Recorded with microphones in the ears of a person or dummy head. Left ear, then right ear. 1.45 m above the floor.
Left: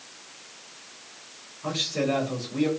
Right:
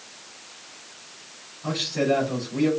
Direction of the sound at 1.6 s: 40° left (ahead or behind).